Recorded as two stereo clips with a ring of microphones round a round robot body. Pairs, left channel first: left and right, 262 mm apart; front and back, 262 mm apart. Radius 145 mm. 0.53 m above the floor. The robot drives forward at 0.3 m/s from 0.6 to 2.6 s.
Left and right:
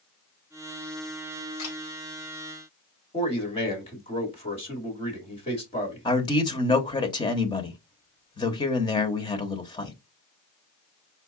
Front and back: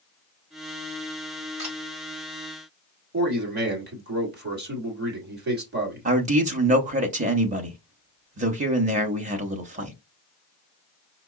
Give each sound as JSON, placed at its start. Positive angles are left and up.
{"t": 1.6, "sound": "a camera shutter", "azimuth_deg": 135, "distance_m": 2.5}
{"t": 3.1, "sound": "a man speaking", "azimuth_deg": 150, "distance_m": 1.5}
{"t": 6.0, "sound": "a man speaking", "azimuth_deg": 150, "distance_m": 0.8}